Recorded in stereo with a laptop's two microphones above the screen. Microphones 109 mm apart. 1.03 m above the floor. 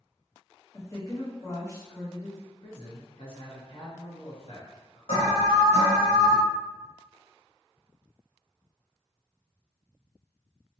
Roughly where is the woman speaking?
Left.